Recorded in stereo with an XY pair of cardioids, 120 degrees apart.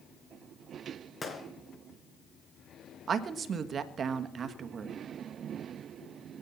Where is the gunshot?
25° left, 3.5 m.